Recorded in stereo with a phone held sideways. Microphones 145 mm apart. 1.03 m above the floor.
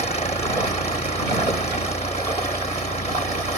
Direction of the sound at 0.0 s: 45° left (ahead or behind).